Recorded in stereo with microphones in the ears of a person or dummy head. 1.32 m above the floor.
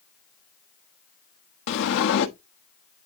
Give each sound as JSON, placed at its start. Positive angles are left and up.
{"t": 1.7, "sound": "a sliding door", "side_deg": 60, "distance_m": 1.0}